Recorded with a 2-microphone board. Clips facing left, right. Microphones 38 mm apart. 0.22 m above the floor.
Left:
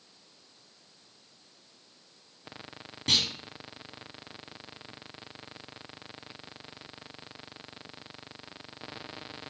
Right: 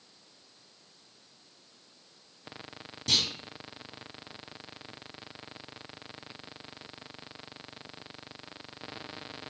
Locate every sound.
3.1 s a clunk: 40° left (ahead or behind), 1.3 m